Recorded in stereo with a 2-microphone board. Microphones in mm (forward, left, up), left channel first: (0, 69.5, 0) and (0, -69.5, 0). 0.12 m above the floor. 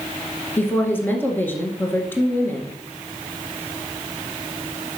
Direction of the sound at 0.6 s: 15° left (ahead or behind).